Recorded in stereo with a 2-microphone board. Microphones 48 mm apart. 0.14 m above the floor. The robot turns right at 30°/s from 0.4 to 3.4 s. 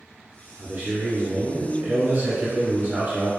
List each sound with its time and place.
0.6 s a man speaking: 25° right (ahead or behind), 1.8 m; by 3.3 s 15° right (ahead or behind), 1.8 m